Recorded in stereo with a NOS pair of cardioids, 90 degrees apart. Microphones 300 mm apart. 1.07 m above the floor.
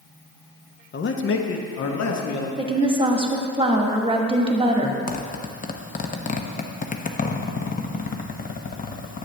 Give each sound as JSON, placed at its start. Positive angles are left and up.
{"t": 0.9, "sound": "a man speaking", "azimuth_deg": 35, "distance_m": 0.9}
{"t": 2.6, "sound": "a woman speaking", "azimuth_deg": -15, "distance_m": 1.3}
{"t": 5.1, "sound": "a zipper", "azimuth_deg": 25, "distance_m": 0.8}